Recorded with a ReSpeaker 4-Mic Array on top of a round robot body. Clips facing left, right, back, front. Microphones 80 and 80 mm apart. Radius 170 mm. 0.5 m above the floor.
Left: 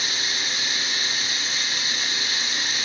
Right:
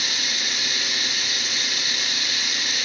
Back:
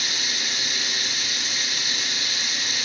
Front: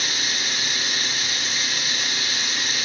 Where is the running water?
35° left, 2 m.